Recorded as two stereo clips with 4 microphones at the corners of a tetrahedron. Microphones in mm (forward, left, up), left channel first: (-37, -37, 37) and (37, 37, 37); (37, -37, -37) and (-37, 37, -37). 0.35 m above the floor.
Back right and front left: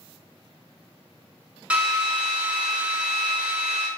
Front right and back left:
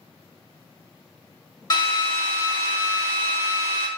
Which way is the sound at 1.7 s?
30° right.